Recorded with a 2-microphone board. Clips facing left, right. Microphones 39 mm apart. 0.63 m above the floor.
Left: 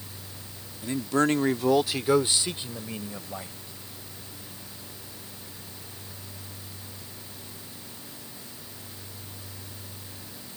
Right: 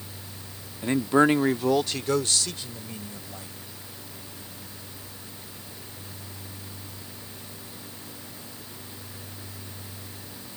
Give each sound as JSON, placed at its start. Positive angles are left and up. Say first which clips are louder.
{"t": 0.8, "sound": "a man speaking", "louder": "right 4 dB", "side_deg": -45}